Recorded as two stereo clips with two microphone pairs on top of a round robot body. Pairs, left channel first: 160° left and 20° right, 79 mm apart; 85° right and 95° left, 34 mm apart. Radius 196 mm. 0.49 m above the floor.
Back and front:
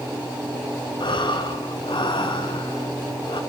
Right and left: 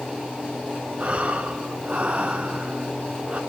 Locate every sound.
1.0 s breathing: 145° left, 2.5 m